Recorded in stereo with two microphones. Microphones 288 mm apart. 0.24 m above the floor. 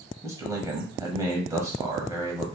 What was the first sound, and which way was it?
A man speaking, 10° right (ahead or behind).